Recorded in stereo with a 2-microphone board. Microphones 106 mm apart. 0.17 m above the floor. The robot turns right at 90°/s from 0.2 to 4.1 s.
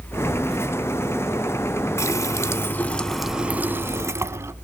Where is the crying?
No crying in this recording.